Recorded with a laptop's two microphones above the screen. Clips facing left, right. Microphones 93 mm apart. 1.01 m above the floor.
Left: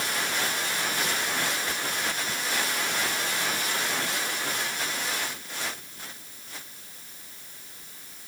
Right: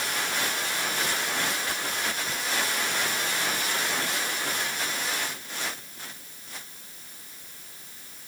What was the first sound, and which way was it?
Only background noise.